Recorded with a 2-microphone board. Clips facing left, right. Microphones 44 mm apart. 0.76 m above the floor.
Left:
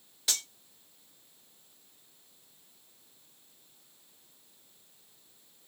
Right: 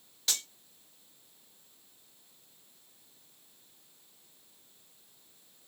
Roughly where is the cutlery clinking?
Centre.